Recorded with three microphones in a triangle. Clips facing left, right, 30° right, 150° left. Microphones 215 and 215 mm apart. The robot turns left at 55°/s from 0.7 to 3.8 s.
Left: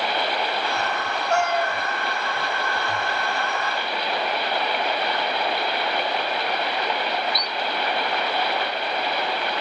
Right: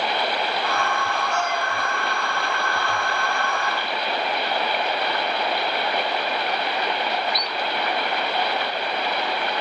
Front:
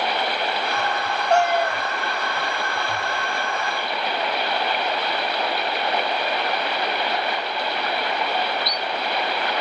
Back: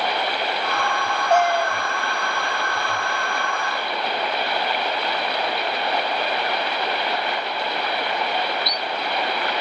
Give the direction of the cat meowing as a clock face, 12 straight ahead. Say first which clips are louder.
Left 4 dB, even; 10 o'clock.